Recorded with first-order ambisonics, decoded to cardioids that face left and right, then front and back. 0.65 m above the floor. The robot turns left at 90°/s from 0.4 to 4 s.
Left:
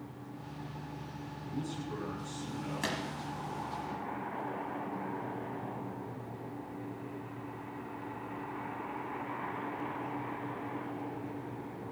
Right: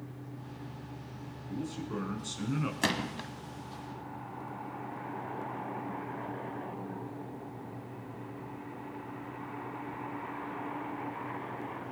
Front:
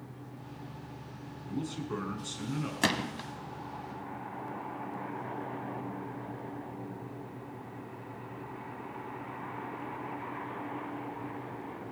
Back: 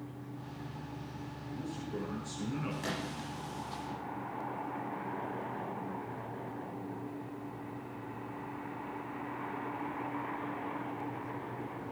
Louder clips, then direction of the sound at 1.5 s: Right 2 dB, front 5 dB; 25° left.